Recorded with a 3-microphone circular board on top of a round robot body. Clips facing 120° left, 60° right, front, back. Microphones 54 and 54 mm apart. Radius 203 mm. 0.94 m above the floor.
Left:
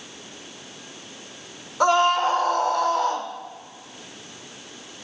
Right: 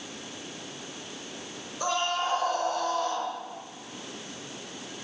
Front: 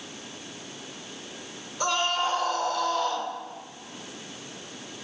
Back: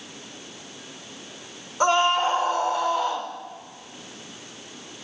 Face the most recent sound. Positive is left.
turn(degrees=100)